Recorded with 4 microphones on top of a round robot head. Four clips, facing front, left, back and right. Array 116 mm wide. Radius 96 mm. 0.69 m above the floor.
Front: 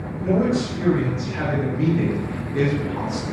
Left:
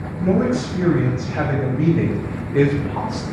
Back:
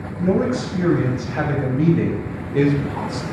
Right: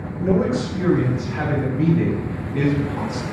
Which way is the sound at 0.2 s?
135° left.